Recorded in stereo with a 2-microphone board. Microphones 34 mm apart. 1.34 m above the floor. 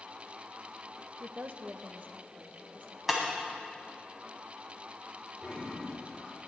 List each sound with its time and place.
1.2 s a woman speaking: 70° right (ahead or behind), 0.7 m; by 3.0 s 45° right (ahead or behind), 1.9 m
3.1 s breaking glass: centre (ahead or behind), 2 m
5.4 s a toilet flushing: 10° right (ahead or behind), 5.5 m